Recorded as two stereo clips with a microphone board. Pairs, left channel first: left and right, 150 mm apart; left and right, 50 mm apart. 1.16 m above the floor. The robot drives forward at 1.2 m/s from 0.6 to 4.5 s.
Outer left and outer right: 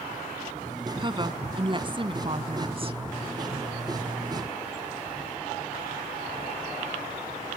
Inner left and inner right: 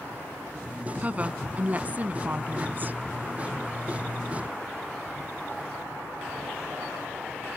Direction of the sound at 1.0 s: 30° right (ahead or behind).